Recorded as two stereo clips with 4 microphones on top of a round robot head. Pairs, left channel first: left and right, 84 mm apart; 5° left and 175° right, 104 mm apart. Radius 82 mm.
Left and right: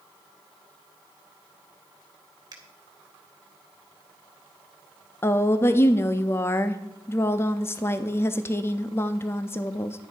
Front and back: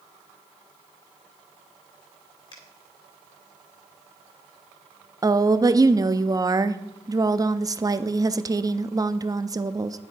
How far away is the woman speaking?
About 0.7 m.